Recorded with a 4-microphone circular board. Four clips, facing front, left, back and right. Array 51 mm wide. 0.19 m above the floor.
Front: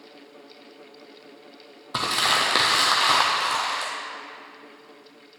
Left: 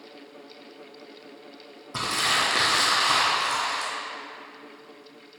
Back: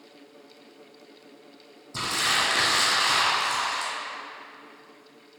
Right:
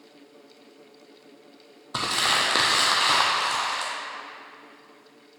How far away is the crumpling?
About 1.2 m.